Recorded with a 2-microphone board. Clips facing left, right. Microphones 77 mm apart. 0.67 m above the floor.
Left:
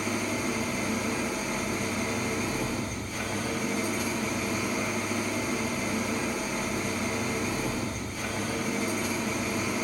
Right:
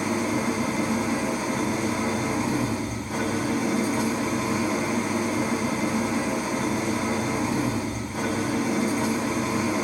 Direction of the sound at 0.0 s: 85° right.